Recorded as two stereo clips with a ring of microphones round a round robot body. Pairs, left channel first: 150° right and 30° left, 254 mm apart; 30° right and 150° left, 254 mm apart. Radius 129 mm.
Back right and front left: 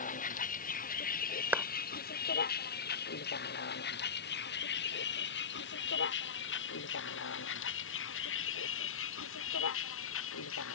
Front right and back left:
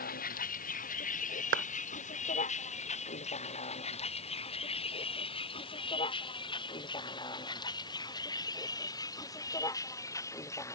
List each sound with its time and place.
0.0 s a vehicle: 90° right; by 10.8 s 110° right
1.5 s a clap: 115° left